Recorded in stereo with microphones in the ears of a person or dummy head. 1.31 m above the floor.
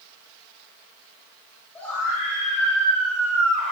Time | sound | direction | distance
1.8 | a scream | 5° left (ahead or behind) | 7.5 m